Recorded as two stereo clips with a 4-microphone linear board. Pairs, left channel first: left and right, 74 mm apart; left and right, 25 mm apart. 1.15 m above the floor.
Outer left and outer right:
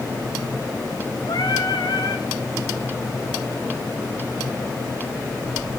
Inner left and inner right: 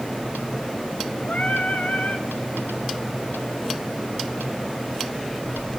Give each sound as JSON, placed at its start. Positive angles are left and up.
{"t": 1.3, "sound": "singing", "side_deg": 80, "distance_m": 1.7}